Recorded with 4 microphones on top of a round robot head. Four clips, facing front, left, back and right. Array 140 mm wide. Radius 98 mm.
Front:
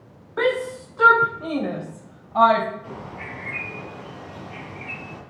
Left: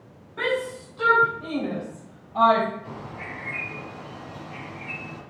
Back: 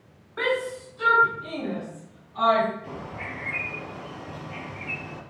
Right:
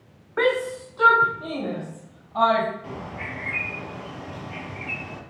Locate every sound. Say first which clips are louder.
0.4 s a shout: right 4 dB, front 4 dB; 50° right, 1.4 m; by 2.7 s 5° right, 4 m
2.8 s a bird: right 2 dB, front 1 dB; 85° right, 6.5 m